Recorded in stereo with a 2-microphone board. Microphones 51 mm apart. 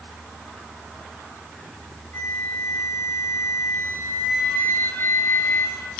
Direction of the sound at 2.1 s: 60° left (ahead or behind).